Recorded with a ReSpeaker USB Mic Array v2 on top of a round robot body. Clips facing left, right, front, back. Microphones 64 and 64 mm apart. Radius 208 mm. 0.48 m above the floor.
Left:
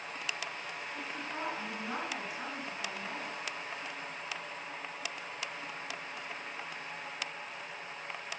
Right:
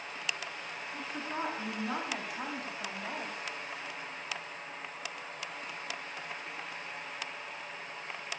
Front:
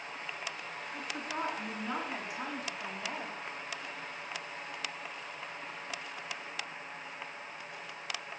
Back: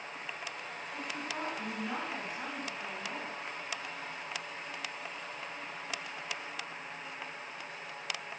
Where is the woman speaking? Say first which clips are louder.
Right 4 dB, front 1 dB; 85° right, 7.5 m; by 3.4 s 80° right, 4.5 m.